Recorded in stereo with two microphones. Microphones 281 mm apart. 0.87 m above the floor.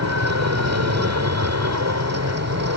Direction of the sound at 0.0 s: 65° right (ahead or behind).